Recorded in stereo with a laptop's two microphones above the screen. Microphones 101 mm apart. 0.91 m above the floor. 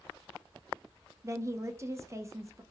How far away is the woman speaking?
About 0.5 m.